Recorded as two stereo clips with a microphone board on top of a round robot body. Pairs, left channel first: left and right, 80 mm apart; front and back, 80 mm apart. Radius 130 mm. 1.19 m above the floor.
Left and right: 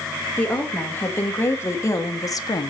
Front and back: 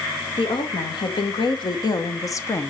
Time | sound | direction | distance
0.4 | a woman speaking | 20° left | 1.7 m